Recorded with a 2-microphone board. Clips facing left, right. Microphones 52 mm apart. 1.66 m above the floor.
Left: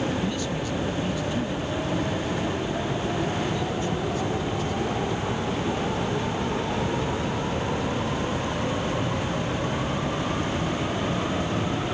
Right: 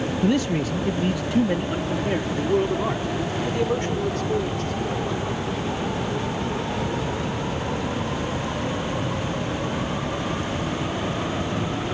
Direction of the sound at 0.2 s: 70° right (ahead or behind).